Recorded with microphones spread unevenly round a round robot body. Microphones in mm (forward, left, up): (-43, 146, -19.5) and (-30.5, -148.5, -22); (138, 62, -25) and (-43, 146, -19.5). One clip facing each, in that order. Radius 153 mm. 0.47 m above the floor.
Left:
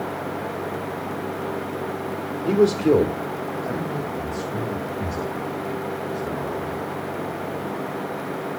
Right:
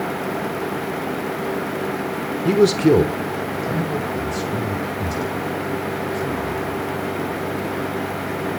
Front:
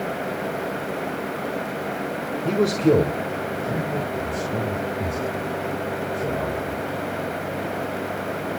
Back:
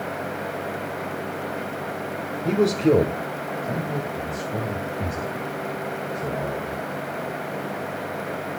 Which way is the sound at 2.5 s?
115° right.